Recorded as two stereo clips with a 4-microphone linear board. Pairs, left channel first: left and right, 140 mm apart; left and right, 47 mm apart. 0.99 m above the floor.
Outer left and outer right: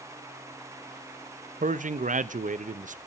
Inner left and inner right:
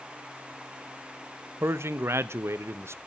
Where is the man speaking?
65° right (ahead or behind), 0.5 m.